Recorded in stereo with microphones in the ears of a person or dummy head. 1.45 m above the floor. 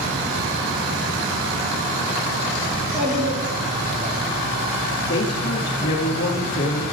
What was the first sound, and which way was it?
A child speaking, centre (ahead or behind).